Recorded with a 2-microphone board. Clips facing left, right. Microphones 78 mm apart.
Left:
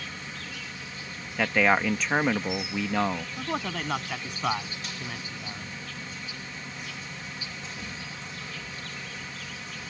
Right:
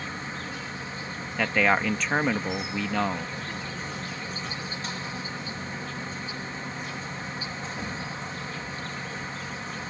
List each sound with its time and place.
0.0 s an insect: 35° right (ahead or behind)
1.4 s a man speaking: 5° left (ahead or behind)
3.4 s a man speaking: 80° left